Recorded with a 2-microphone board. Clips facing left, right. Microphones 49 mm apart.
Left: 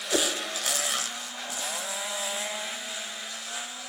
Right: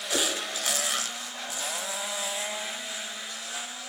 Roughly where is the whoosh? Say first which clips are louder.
Left 2 dB; left.